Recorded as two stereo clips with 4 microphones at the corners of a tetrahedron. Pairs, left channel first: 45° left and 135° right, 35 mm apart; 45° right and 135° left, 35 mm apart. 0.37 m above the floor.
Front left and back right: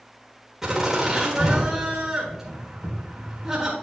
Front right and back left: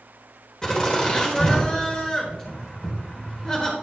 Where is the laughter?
75° right, 1.4 m.